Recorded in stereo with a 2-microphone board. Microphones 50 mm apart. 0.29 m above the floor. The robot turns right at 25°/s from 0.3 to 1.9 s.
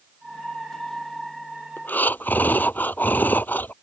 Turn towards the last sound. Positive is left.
turn(degrees=40)  # may be behind; listen again after turning